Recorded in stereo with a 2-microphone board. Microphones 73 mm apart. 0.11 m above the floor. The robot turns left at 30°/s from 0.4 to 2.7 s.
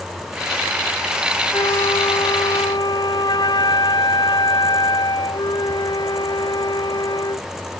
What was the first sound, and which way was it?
A flute, 110° left.